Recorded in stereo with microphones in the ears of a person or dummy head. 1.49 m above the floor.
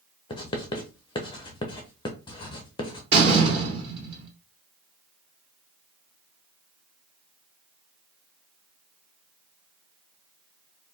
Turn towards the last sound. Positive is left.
turn(degrees=-30)  # may be behind; listen again after turning